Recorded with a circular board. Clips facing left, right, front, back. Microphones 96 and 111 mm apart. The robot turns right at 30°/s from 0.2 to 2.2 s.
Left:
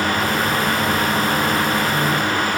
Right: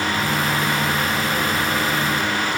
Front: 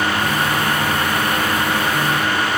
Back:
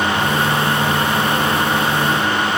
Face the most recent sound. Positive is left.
No sound to turn to.